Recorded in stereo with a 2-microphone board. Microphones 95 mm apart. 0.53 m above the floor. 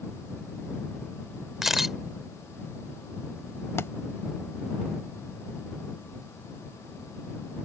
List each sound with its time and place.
1.6 s a camera shutter: 5° right (ahead or behind)
3.8 s a thud: 30° left (ahead or behind)